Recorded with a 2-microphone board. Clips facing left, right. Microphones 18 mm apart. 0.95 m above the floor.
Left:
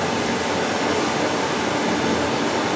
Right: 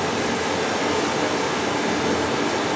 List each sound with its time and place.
0.0 s running water: 15° left (ahead or behind), 0.9 m